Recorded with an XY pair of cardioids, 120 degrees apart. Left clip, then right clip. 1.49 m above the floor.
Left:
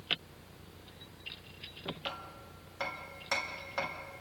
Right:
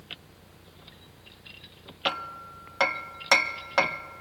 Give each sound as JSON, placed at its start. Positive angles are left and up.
{"t": 2.0, "sound": "hammering", "azimuth_deg": -60, "distance_m": 0.6}